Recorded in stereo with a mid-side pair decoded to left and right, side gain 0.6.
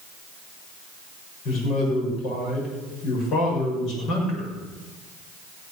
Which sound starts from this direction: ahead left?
A man speaking, at 1.4 s.